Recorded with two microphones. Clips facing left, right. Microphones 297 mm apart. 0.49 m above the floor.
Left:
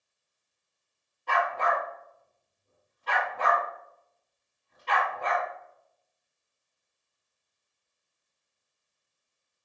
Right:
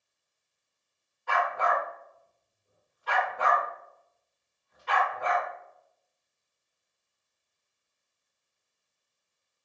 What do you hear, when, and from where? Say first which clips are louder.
1.3 s a dog barking: even; 40° left (ahead or behind), 1.3 m